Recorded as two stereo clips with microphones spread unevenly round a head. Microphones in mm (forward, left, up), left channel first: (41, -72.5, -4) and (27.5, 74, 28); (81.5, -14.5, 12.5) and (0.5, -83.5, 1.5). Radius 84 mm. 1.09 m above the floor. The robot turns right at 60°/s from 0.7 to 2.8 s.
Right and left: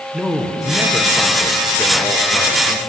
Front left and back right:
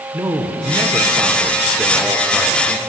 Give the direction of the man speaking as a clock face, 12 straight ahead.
5 o'clock.